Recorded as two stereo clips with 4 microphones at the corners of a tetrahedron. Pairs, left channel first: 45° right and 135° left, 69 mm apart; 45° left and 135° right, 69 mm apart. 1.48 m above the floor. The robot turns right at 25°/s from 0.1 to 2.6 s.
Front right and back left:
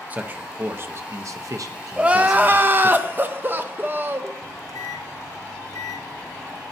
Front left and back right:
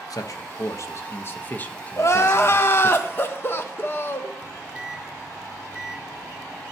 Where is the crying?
70° left, 0.6 m; by 4.3 s 85° left, 0.6 m.